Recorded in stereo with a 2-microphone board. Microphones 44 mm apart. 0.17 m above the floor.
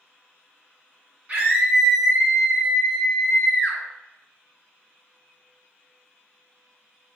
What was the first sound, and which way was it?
A scream, 35° right (ahead or behind).